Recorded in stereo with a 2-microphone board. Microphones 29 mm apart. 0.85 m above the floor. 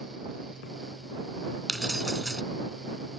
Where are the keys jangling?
15° left (ahead or behind).